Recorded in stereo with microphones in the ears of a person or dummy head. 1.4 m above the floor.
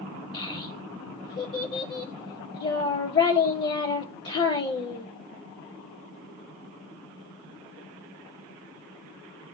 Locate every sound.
0.3 s a child speaking: 35° left (ahead or behind), 0.5 m